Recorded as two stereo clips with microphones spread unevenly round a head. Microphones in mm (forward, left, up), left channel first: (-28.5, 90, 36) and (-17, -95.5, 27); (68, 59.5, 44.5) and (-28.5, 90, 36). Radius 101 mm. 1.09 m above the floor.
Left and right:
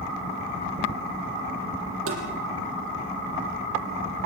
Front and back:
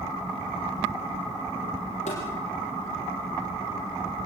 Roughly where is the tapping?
Ahead right.